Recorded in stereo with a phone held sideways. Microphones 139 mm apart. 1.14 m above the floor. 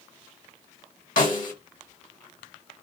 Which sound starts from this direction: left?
A snare drum, at 1.2 s.